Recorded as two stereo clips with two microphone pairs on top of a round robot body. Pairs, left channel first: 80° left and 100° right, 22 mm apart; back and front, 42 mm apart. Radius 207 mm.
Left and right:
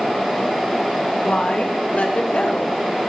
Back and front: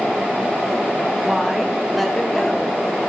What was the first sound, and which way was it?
A woman speaking, 85° left.